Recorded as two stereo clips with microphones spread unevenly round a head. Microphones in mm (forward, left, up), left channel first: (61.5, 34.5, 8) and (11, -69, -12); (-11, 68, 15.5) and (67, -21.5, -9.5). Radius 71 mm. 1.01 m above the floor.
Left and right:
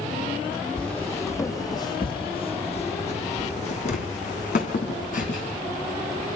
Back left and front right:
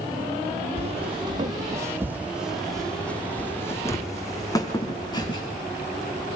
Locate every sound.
0.8 s footsteps: 10° right, 2.5 m; by 5.5 s 80° left, 5 m